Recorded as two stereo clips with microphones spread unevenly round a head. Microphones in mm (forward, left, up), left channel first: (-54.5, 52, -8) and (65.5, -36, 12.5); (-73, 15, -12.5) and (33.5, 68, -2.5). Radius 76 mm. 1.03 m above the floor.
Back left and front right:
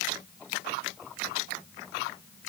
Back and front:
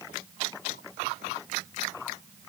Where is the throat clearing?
No throat clearing in this recording.